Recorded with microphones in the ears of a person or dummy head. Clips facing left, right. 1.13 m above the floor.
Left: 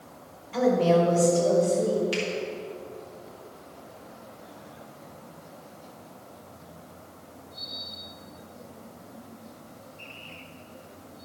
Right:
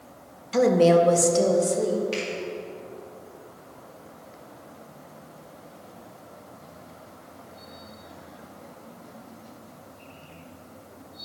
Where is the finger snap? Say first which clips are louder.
Even; 5° left (ahead or behind), 2 m.